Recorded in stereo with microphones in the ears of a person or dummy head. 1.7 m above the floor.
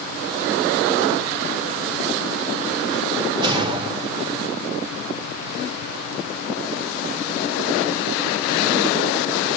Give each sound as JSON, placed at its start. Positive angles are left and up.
{"t": 3.4, "sound": "a whoosh", "side_deg": -25, "distance_m": 1.0}